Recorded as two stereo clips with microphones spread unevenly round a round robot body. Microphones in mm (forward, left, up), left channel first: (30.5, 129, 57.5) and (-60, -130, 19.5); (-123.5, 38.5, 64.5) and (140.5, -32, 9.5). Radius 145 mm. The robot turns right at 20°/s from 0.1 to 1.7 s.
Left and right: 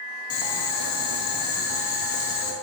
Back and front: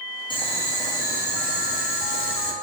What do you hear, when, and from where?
0.3 s boiling: 90° left, 1.3 m; by 2.5 s 115° left, 1.3 m